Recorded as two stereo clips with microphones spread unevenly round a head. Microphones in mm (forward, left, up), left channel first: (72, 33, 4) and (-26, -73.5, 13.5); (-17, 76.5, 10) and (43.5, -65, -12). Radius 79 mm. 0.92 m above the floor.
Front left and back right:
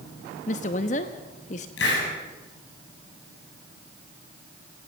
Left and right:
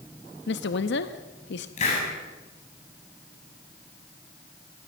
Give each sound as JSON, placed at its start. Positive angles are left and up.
{"t": 0.5, "sound": "a woman speaking", "azimuth_deg": 95, "distance_m": 1.0}
{"t": 1.8, "sound": "a hiss", "azimuth_deg": 65, "distance_m": 8.0}